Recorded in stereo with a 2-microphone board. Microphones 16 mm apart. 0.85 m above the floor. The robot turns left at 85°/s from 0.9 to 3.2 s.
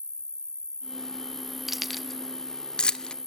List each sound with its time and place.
0.0 s an insect: 115° right, 1.8 m; by 3.3 s 50° left, 1.8 m
1.7 s keys jangling: 10° right (ahead or behind), 0.7 m; by 3.1 s 55° left (ahead or behind), 0.7 m